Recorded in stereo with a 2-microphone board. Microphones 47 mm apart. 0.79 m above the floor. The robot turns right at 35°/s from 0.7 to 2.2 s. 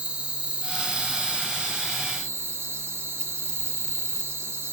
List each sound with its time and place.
0.0 s an insect: 160° right, 1.0 m; by 4.7 s 105° right, 1.0 m